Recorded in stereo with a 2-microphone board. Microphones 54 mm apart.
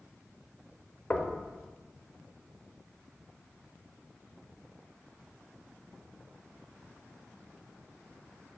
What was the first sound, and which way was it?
Knocking, 25° left (ahead or behind).